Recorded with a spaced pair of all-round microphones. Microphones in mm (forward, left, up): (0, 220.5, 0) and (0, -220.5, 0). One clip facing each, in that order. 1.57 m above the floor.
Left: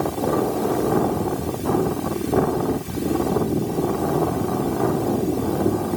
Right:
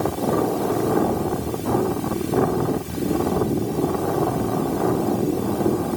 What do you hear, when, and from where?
Only background noise.